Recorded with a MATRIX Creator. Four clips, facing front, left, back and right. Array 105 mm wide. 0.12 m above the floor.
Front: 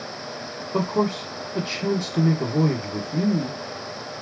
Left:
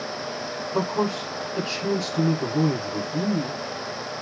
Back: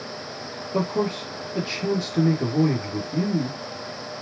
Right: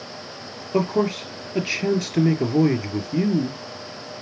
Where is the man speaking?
85° right, 3 m.